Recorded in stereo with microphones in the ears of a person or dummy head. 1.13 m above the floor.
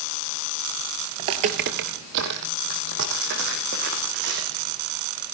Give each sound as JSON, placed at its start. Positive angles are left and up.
{"t": 1.2, "sound": "footsteps", "side_deg": -25, "distance_m": 1.2}